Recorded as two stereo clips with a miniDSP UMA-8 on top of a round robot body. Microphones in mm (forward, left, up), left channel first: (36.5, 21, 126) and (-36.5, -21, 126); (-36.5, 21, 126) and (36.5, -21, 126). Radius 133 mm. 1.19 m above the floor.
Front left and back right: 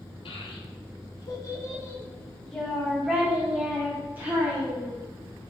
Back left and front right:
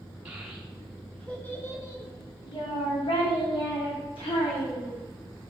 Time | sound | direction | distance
0.2 | a child speaking | 45° left | 1.6 m